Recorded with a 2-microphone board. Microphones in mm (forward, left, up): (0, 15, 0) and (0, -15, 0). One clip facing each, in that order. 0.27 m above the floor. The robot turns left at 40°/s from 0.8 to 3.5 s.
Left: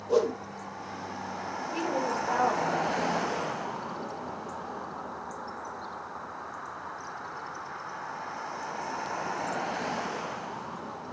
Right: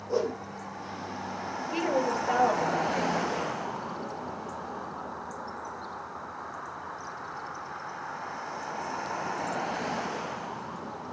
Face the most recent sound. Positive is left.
turn(degrees=-115)